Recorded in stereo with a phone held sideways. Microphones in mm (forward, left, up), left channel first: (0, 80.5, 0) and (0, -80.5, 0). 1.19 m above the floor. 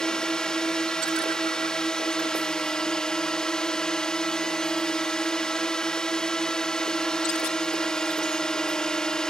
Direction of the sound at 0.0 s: 5° left (ahead or behind).